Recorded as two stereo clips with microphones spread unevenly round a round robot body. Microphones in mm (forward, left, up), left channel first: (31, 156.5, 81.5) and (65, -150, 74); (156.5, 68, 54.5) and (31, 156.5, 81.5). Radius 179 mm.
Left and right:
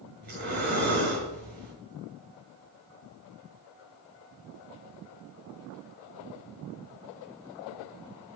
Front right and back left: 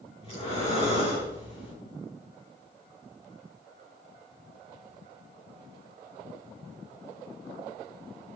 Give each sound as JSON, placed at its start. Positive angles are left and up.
{"t": 0.2, "sound": "breathing", "azimuth_deg": -145, "distance_m": 6.0}